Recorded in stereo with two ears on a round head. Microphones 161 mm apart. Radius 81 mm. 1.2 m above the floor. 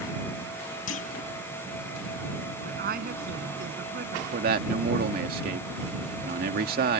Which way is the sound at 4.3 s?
55° right (ahead or behind).